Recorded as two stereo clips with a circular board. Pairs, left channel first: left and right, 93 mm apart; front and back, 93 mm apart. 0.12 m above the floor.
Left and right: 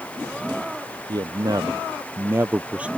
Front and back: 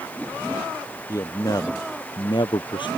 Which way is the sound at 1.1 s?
50° right.